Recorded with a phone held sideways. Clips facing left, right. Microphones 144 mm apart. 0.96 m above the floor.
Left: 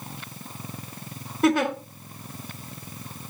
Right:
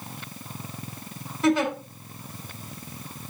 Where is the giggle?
60° left (ahead or behind), 2.5 m.